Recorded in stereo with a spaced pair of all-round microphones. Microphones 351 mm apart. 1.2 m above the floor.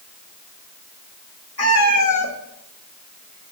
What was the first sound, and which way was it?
A cat meowing, 45° left (ahead or behind).